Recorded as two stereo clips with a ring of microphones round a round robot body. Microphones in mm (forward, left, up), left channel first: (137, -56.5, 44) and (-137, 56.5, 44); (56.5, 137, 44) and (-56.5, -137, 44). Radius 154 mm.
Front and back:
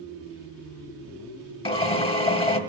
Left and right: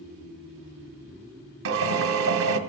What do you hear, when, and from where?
1.6 s a drill: 90° right, 1.6 m